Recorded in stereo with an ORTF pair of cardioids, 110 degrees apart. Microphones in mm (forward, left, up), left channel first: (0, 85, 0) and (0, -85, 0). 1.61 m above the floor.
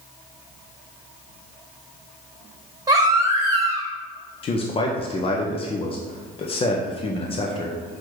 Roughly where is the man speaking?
Ahead left.